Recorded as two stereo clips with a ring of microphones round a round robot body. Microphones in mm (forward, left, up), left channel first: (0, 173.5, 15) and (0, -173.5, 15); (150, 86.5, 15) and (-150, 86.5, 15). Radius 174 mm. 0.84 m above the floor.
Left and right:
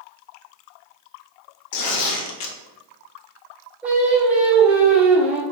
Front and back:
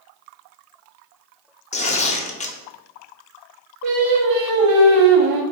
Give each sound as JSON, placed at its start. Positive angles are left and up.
{"t": 1.7, "sound": "tearing paper", "azimuth_deg": 65, "distance_m": 0.6}
{"t": 3.8, "sound": "singing", "azimuth_deg": -175, "distance_m": 0.8}